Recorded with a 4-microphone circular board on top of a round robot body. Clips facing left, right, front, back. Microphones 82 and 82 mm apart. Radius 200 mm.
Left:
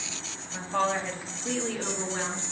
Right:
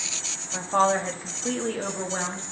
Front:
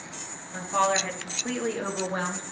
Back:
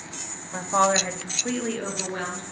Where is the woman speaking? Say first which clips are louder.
Right 5 dB, back 3 dB; 135° right, 1.8 m; by 2.4 s 45° right, 2 m.